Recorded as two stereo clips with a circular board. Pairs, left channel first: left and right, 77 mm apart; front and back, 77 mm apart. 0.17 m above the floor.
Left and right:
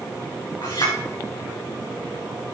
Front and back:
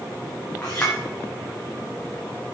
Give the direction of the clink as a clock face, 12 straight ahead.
10 o'clock.